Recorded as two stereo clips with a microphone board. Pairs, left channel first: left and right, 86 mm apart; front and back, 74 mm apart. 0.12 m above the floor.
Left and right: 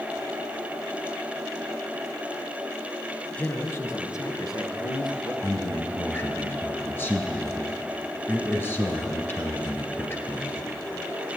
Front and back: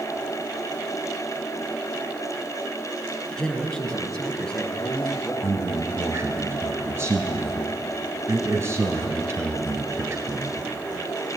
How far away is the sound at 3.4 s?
About 1.3 m.